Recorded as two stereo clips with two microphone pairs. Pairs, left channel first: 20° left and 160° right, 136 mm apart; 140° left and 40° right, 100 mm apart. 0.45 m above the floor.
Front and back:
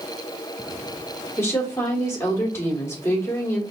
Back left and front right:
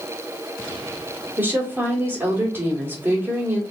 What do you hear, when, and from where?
1.4 s a woman speaking: 15° right, 1.4 m